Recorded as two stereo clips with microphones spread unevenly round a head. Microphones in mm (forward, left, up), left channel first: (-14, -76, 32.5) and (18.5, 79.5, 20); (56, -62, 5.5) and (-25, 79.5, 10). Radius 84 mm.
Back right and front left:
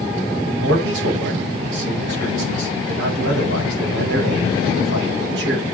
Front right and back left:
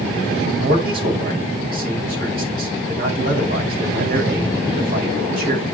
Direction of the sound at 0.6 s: 85° left.